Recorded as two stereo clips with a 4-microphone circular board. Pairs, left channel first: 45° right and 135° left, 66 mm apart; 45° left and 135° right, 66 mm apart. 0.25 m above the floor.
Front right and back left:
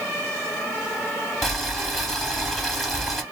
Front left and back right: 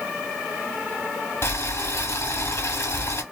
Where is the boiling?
45° left, 0.9 m.